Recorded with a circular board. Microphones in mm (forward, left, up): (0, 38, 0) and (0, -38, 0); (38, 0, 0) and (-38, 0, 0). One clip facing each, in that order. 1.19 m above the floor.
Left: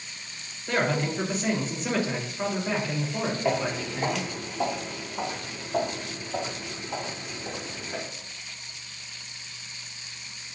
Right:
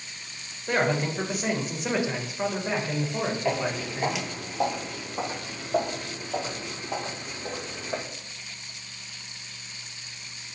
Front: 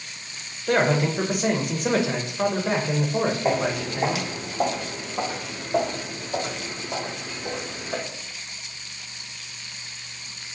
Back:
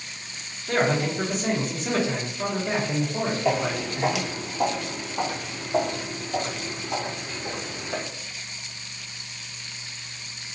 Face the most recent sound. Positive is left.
turn(degrees=-80)